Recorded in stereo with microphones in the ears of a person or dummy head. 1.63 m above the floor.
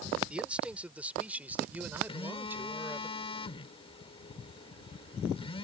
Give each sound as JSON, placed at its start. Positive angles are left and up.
{"t": 0.3, "sound": "a man speaking", "side_deg": -10}
{"t": 2.1, "sound": "a phone buzzing", "side_deg": 35}